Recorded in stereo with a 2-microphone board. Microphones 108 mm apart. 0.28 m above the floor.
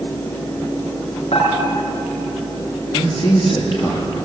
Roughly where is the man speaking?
Left.